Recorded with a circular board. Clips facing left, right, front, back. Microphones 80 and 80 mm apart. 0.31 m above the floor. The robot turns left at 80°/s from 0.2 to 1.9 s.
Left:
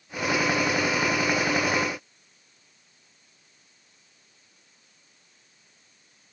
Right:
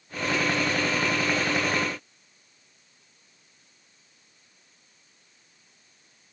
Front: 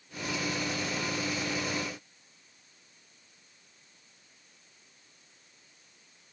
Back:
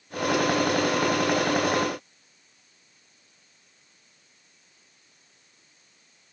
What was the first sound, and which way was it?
Only background noise.